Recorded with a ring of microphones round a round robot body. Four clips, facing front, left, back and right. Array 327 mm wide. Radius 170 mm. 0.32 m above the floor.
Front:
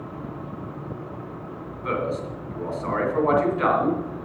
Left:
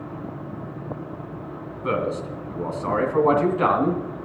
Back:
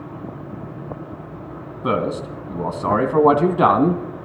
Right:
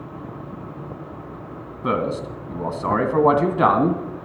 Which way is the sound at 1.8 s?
150° right.